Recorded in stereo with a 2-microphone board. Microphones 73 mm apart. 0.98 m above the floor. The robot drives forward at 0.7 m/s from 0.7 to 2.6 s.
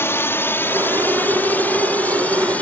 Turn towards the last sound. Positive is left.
turn(degrees=20)  # may be behind; listen again after turning